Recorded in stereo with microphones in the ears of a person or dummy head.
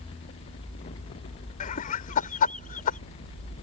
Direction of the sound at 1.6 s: 45° left (ahead or behind).